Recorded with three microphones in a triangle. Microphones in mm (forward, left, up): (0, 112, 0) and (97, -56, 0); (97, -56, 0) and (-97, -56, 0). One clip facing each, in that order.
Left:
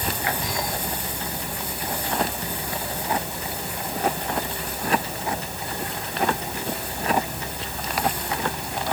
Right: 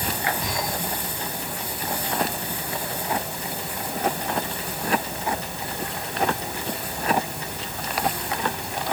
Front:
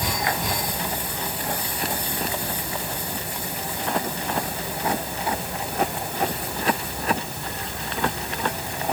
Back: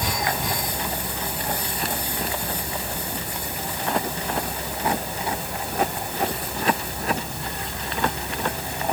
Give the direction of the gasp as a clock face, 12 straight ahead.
I don't hear a gasp.